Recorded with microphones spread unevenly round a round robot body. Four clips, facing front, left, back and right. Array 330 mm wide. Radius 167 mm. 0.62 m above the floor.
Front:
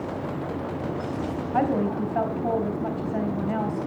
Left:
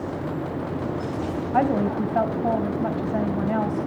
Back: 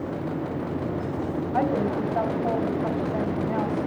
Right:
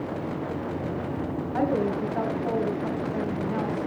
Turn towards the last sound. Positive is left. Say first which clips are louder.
# left 4 dB, front 1 dB
turn(degrees=85)